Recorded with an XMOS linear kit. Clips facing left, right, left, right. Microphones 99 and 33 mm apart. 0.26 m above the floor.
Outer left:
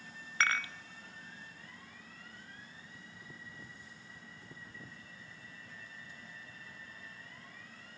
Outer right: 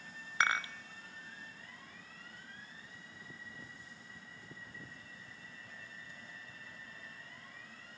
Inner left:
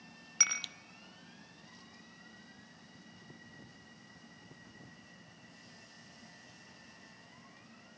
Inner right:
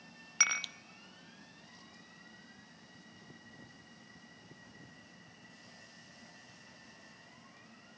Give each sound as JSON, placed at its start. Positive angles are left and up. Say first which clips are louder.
{"t": 0.4, "sound": "dishes clattering", "louder": "outer right 1 dB, inner right 3 dB", "side_deg": -15, "distance_m": 0.6}